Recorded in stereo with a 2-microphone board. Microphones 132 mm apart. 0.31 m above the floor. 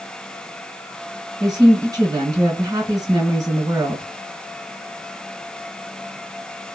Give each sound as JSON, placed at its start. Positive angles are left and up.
{"t": 1.4, "sound": "a woman speaking", "side_deg": -35, "distance_m": 1.8}